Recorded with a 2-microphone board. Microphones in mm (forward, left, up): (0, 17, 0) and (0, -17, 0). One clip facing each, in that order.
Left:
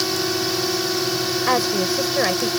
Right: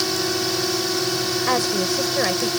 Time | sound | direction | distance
0.0 | a drone | 5° left (ahead or behind) | ?
1.5 | a woman speaking | 10° left (ahead or behind) | ?